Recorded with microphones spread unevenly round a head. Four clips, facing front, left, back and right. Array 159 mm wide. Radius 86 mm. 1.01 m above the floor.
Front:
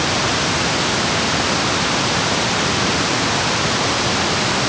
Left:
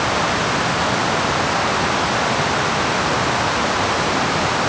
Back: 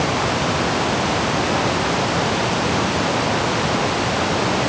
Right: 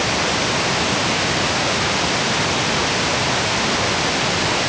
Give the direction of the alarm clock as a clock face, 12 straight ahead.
I don't hear an alarm clock.